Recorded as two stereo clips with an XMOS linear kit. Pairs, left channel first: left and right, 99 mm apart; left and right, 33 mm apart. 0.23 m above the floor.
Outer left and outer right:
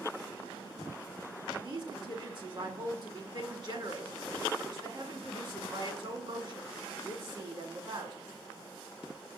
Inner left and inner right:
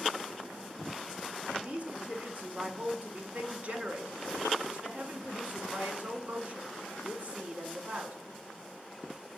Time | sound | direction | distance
1.5 | a woman speaking | 55° right (ahead or behind) | 1.9 m